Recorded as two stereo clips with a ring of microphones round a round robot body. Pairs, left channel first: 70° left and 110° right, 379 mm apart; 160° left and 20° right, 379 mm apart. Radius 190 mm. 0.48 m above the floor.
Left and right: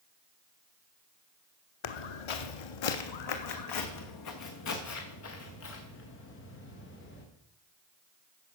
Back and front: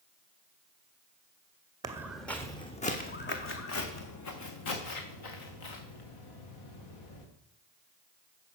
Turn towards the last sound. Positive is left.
turn(degrees=130)